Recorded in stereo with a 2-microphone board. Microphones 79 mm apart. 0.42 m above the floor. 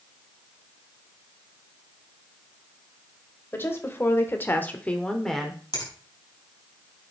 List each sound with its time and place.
3.5 s a woman speaking: 30° left (ahead or behind), 1.6 m; by 5.6 s centre (ahead or behind), 1.2 m
5.7 s a finger snap: 70° left (ahead or behind), 4.5 m